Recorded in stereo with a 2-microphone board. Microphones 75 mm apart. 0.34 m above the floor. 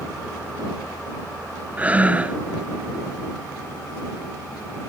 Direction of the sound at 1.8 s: 20° right (ahead or behind).